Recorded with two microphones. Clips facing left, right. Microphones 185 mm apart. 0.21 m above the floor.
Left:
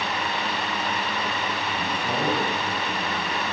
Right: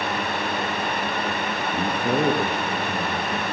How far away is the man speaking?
About 3.5 m.